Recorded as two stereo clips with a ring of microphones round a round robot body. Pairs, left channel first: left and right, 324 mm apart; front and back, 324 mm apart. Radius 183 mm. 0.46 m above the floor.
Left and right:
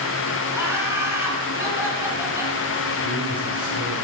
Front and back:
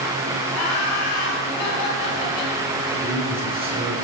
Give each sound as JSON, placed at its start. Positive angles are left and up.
{"t": 0.5, "sound": "laughter", "azimuth_deg": -10, "distance_m": 5.0}
{"t": 3.0, "sound": "a man speaking", "azimuth_deg": -105, "distance_m": 7.0}